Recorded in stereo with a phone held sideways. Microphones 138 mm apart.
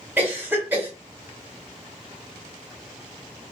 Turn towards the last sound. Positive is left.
turn(degrees=-15)  # may be behind; listen again after turning